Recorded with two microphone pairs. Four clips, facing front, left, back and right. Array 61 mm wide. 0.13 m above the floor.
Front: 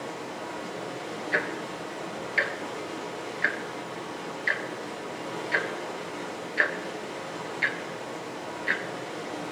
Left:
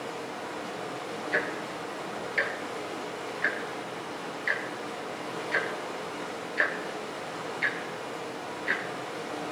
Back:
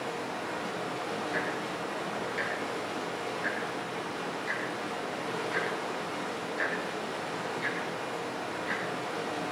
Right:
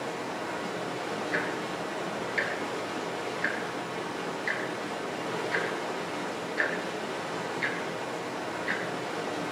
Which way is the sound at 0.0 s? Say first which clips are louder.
Right 2 dB, back 1 dB; 120° right.